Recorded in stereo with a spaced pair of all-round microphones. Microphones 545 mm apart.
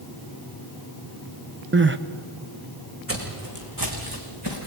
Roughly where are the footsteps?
Right.